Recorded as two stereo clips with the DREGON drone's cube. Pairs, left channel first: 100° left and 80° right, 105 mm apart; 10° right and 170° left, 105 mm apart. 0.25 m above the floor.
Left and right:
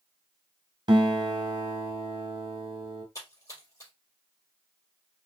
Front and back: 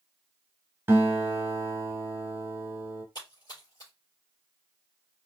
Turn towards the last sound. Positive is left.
turn(degrees=40)